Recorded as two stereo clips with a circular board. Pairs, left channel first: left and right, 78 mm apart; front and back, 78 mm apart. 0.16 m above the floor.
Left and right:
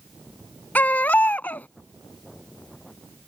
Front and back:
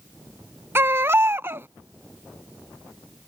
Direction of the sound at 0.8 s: 145° left.